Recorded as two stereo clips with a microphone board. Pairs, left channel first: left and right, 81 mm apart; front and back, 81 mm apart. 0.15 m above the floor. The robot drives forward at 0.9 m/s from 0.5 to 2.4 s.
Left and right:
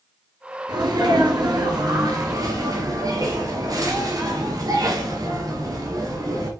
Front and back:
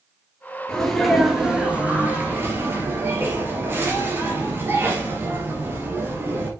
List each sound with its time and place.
0.7 s a sneeze: 80° right, 2.5 m; by 6.5 s 120° right, 2.5 m